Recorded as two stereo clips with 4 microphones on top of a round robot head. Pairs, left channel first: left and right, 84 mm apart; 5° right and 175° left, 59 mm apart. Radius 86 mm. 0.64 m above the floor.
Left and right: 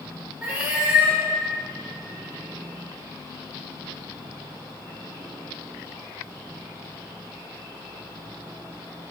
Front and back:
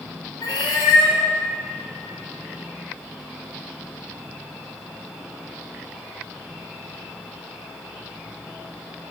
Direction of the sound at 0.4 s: 10° right.